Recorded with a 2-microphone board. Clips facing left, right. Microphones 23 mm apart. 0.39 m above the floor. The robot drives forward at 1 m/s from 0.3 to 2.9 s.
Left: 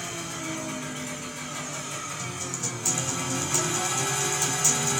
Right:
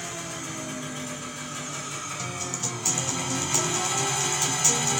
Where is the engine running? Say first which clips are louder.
Left 1 dB; centre (ahead or behind), 3.5 m; by 5.0 s 5° right (ahead or behind), 1.2 m.